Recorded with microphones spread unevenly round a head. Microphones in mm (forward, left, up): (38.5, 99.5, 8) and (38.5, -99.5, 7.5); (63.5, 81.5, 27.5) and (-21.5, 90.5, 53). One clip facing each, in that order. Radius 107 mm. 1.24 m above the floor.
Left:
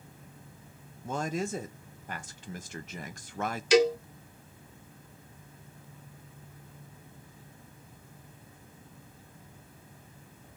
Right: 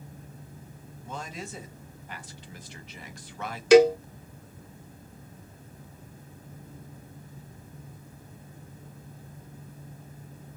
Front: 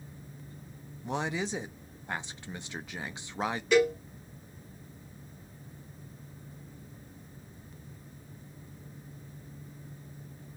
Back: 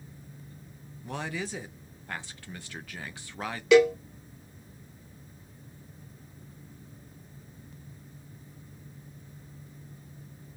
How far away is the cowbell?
About 0.7 m.